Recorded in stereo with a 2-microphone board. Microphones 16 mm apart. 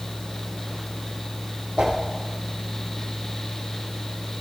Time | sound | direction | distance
1.8 | a whoosh | 75° right (ahead or behind) | 5 m